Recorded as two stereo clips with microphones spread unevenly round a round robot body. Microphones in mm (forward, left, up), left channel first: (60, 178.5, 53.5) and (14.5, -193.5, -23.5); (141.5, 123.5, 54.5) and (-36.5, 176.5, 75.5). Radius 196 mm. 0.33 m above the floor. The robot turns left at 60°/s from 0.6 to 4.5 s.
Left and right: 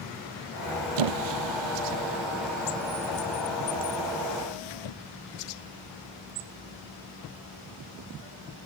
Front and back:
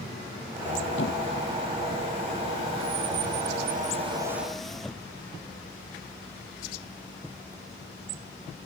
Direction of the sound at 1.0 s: 75° right.